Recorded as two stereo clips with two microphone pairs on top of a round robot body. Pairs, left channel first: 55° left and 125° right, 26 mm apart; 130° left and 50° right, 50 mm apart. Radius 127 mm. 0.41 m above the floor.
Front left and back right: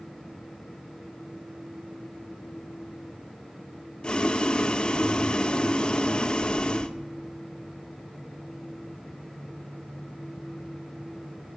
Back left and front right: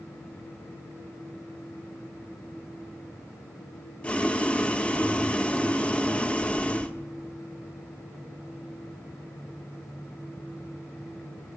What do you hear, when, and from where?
4.0 s boiling: 85° left, 0.8 m